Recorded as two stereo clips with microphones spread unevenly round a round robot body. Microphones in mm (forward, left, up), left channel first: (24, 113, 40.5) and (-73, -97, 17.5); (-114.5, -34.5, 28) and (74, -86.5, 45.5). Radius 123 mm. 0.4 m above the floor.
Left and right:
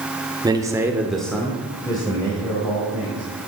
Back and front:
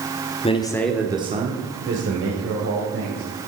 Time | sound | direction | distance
0.4 | a man speaking | 170° right | 1.3 m